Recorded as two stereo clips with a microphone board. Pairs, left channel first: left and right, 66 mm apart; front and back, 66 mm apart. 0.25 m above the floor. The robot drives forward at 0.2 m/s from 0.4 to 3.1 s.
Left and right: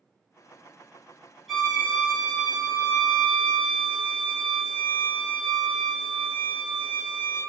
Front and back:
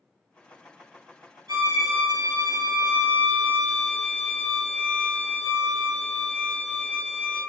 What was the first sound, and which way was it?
A violin, 175° right.